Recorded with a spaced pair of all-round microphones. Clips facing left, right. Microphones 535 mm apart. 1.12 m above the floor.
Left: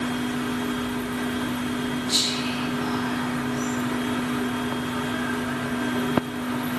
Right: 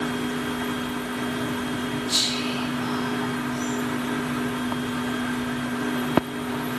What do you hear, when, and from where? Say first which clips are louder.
2.1 s whispering: left 1 dB; 75° right (ahead or behind), 3 m